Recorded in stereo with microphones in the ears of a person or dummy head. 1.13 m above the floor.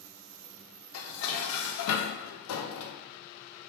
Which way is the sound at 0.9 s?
85° left.